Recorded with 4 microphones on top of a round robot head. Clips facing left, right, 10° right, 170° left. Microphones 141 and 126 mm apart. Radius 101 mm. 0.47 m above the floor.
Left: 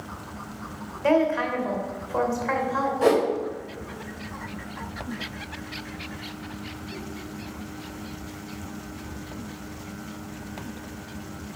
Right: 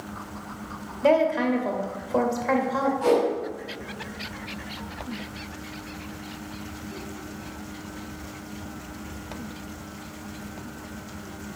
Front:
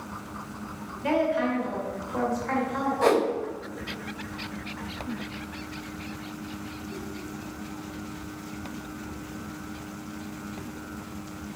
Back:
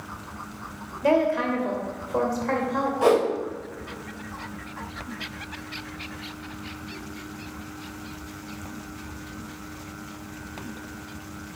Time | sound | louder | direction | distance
1.0 | a woman speaking | right 1 dB, back 3 dB | 145° right | 2.5 m
3.0 | a whoosh | left 2 dB, back 2 dB | 90° left | 3 m